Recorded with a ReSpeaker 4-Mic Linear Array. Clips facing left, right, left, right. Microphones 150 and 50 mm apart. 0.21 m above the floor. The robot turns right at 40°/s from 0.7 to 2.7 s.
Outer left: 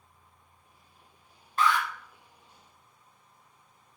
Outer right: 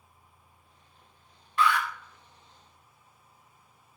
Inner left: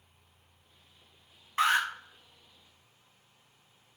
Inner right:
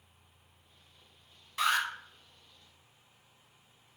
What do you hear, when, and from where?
1.6 s an alarm: 40° left (ahead or behind), 0.8 m